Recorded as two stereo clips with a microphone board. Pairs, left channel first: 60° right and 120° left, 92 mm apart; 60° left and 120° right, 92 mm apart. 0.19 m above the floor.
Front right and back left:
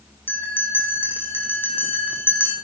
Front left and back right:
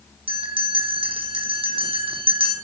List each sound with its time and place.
0.3 s a bell: 130° right, 3.5 m